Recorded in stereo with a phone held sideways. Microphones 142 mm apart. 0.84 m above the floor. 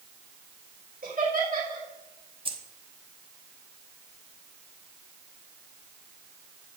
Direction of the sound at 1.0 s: 75° right (ahead or behind).